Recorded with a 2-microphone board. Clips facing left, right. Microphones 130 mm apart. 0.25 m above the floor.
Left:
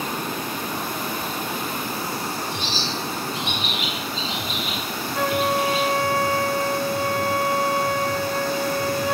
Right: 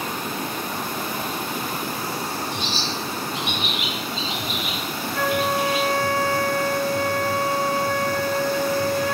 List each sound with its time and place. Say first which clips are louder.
2.5 s a bird: even; 35° left (ahead or behind), 3.5 m
5.1 s a flute: left 1 dB; 20° left (ahead or behind), 0.7 m